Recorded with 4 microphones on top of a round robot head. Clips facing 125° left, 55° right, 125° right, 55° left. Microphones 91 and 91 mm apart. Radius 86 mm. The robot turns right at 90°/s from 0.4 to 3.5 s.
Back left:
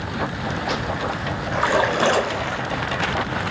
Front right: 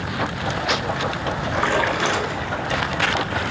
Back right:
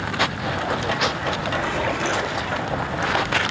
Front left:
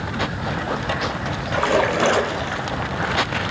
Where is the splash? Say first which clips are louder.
Back left 2 dB, front left 10 dB; 30° left, 3 m; by 2.7 s 135° left, 3 m.